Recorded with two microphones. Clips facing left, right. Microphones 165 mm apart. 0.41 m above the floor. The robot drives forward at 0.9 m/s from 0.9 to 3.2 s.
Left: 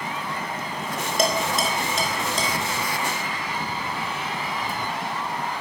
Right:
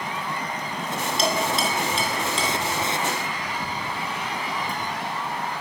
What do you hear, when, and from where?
1.2 s dishes clattering: 55° left (ahead or behind), 3 m; by 2.5 s 40° left (ahead or behind), 4 m